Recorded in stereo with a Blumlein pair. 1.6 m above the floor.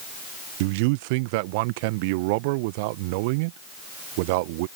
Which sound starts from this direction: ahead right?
A man speaking, at 0.6 s.